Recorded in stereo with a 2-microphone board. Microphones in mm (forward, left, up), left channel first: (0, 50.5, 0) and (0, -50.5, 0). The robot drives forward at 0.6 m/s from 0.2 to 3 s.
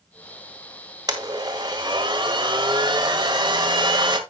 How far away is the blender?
About 1.8 m.